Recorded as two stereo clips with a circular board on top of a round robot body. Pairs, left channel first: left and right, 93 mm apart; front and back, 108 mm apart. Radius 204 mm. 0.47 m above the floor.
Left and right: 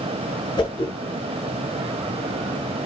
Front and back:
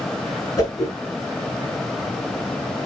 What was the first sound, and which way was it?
A whoosh, 50° left.